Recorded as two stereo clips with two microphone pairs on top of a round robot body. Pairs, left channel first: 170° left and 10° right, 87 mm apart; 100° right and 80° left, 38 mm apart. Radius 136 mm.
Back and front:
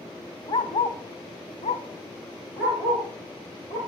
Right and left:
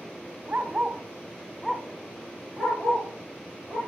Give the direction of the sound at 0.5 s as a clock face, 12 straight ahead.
7 o'clock.